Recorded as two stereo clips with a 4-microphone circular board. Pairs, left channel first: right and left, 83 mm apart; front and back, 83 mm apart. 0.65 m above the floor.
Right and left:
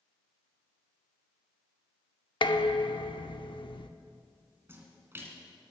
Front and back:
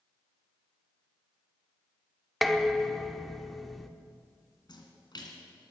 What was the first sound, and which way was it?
Dishes clattering, 90° right.